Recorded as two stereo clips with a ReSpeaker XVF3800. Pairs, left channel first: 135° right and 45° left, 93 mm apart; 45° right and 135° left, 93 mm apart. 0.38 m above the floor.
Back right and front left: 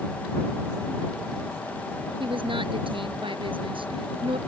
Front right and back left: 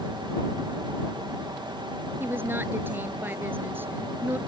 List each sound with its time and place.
2.2 s a woman speaking: 65° left